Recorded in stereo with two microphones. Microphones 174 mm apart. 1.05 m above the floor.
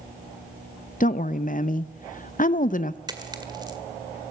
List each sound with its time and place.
1.0 s a woman speaking: 50° left (ahead or behind), 0.6 m
3.1 s a dropped coin: 25° right (ahead or behind), 1.9 m